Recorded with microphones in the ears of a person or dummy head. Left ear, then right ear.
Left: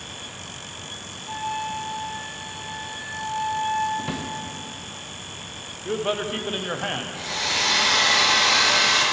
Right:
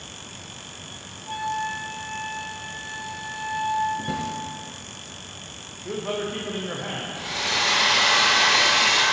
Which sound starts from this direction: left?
A man speaking, at 5.8 s.